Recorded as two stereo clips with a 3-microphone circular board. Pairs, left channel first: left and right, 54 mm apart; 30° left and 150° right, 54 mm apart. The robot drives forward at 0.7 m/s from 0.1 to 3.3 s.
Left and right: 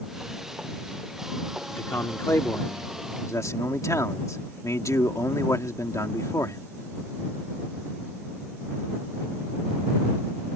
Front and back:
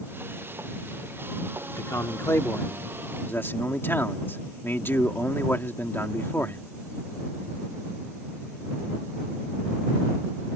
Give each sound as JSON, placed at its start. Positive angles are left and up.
{"t": 1.7, "sound": "a man speaking", "azimuth_deg": 50}